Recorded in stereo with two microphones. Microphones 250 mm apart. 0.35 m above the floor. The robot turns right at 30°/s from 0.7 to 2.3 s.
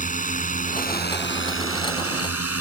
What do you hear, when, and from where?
0.0 s a drone: 35° left; by 2.6 s 80° left